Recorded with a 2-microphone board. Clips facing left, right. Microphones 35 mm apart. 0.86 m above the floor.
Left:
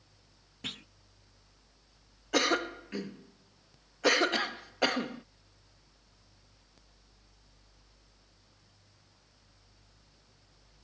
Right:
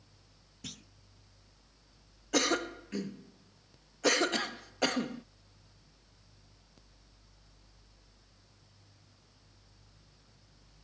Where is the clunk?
40° left (ahead or behind).